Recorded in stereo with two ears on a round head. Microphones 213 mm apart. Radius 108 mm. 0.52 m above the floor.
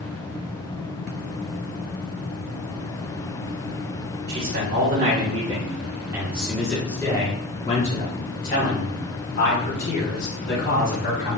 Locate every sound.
4.3 s a man speaking: 40° right (ahead or behind), 1.7 m; by 11.4 s 60° left (ahead or behind), 3 m